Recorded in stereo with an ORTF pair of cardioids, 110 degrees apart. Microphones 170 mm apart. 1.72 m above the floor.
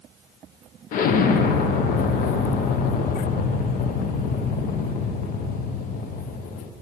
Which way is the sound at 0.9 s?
65° left.